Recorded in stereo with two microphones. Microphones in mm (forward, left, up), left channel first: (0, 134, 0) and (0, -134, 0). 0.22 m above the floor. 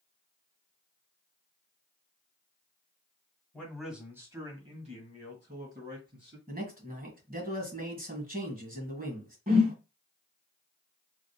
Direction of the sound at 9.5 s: 30° right (ahead or behind).